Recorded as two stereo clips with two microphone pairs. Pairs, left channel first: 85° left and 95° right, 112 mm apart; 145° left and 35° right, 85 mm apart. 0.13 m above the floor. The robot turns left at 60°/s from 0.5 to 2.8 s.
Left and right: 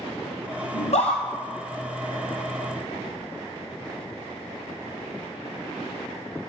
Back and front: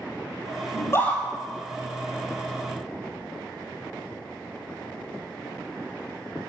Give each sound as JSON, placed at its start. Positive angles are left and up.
{"t": 0.7, "sound": "a scream", "azimuth_deg": 100, "distance_m": 3.0}